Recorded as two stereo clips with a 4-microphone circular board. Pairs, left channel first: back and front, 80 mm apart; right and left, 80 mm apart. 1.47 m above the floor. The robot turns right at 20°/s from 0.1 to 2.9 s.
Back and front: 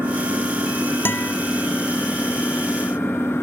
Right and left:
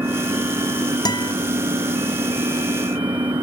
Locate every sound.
0.0 s an engine running: 55° left; by 3.4 s 110° left
1.1 s a guitar: 120° right; by 1.3 s 110° right